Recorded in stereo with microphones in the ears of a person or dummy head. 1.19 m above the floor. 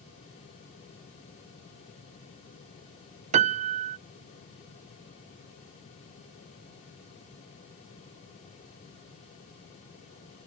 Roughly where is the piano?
Right.